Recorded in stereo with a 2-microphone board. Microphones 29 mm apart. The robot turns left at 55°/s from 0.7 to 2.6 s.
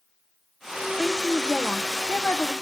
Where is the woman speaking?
165° left, 1.0 m; by 2.5 s 80° left, 1.0 m.